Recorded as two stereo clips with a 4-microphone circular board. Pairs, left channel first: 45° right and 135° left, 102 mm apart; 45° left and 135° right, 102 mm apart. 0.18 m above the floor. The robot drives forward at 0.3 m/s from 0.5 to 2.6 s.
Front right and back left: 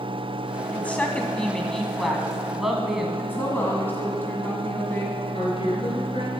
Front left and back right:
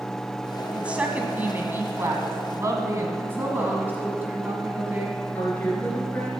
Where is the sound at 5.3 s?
30° right, 3 m.